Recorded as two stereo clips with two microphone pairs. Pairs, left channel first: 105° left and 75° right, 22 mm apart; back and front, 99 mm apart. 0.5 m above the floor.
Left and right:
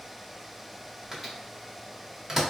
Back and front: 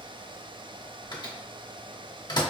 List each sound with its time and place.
1.1 s a microwave: 145° right, 1.0 m